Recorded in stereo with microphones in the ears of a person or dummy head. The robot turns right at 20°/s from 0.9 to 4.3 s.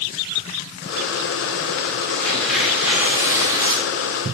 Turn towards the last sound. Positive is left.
turn(degrees=-145)